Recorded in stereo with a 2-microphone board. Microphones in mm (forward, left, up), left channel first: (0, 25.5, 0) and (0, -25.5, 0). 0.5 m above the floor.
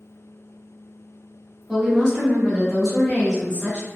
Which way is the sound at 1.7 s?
15° right (ahead or behind).